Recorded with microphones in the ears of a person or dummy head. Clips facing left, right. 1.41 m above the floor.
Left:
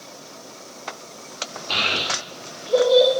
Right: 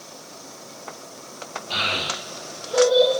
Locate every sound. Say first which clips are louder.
1.7 s a child speaking: left 2 dB; 75° left (ahead or behind), 2.5 m; by 3.1 s 85° left, 4.5 m